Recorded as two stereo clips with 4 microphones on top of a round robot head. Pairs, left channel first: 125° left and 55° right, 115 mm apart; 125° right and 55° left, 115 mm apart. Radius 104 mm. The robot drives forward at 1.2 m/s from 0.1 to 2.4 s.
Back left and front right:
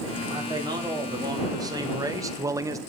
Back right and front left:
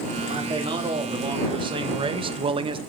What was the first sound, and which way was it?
A man speaking, 5° left.